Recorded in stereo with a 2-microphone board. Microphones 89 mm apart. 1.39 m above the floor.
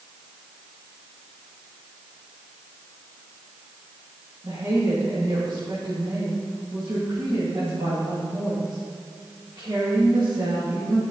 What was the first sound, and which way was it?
A woman speaking, 45° right (ahead or behind).